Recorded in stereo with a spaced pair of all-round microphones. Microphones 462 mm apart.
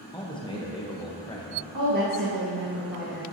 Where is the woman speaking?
45° right (ahead or behind), 1.5 m.